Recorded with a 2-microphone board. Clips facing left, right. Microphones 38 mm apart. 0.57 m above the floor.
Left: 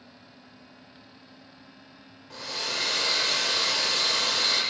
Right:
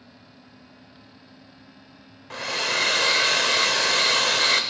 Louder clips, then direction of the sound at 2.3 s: Right 7 dB; 80° right.